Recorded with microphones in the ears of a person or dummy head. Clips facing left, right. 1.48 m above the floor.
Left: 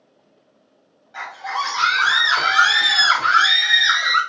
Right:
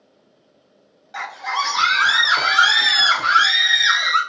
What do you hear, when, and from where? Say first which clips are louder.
1.1 s a scream: right 1 dB; 55° right (ahead or behind), 0.6 m; by 4.2 s centre (ahead or behind), 1.7 m